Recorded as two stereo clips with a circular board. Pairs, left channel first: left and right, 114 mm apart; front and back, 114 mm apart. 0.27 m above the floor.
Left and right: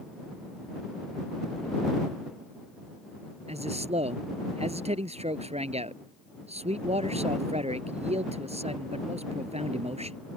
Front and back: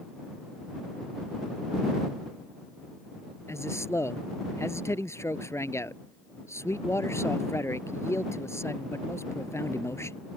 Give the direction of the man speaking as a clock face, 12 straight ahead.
2 o'clock.